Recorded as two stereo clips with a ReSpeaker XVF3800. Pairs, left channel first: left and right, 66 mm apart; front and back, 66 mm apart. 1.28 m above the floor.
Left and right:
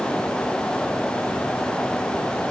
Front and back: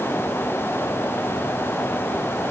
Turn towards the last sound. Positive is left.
No sound to turn to.